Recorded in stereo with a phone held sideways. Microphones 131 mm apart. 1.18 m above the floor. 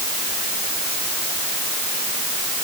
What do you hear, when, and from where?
Only background noise.